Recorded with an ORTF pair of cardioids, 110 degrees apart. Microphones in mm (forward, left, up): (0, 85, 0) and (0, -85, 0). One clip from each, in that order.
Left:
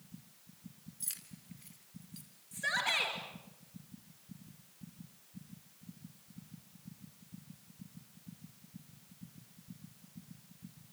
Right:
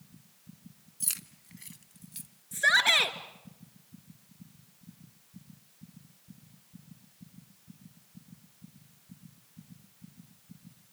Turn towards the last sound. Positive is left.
turn(degrees=-65)